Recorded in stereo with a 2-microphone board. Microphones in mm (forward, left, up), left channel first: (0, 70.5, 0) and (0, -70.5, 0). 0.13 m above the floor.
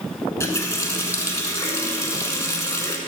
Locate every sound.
0.4 s a running tap: 20° left (ahead or behind), 0.8 m